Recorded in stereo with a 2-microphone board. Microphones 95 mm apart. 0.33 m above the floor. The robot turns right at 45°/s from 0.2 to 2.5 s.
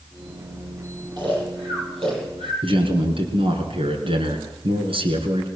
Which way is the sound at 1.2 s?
50° right (ahead or behind).